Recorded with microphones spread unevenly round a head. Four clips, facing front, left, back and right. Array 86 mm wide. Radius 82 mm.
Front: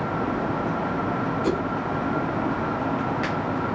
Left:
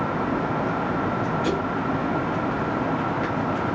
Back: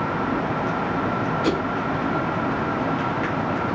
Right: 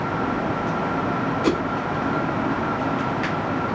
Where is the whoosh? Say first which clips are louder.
Right 5 dB, back 2 dB; 70° right, 1.0 m.